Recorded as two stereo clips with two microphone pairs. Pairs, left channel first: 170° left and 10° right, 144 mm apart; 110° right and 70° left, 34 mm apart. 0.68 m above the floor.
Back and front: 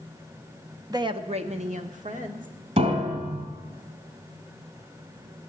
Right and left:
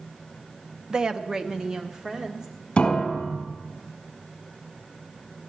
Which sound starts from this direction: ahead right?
A piano, at 2.8 s.